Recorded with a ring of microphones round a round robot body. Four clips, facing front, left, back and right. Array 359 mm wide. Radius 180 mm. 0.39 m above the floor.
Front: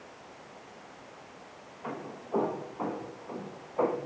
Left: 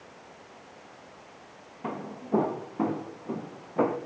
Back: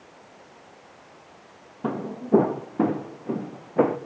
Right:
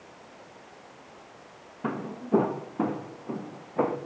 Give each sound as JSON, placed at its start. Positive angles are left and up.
{"t": 1.8, "sound": "footsteps", "azimuth_deg": -160, "distance_m": 2.5}